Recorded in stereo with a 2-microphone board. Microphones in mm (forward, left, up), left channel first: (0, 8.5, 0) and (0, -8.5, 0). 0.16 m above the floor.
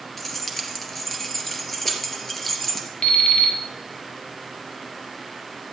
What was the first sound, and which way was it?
Keys jangling, 10° left (ahead or behind).